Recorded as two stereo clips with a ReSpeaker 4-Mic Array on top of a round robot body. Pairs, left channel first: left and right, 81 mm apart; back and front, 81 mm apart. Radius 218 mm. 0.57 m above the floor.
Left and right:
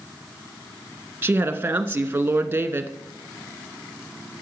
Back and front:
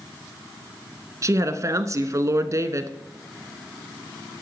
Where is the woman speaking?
30° right, 1.3 m.